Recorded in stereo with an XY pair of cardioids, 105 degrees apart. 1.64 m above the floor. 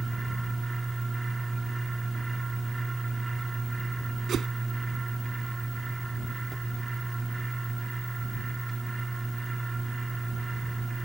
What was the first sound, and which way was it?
A fan, 20° right.